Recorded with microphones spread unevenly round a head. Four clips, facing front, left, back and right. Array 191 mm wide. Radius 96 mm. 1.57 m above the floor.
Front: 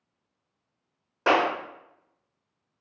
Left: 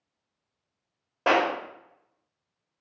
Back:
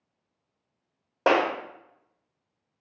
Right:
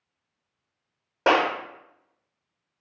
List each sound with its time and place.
1.3 s a clap: 155° right, 0.7 m